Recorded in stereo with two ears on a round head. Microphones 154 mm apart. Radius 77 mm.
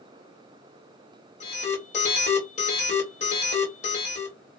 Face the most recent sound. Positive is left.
turn(degrees=40)  # may be behind; listen again after turning